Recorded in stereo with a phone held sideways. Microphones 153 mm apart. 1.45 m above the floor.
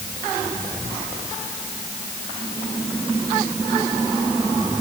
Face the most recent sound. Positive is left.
No sound to turn to.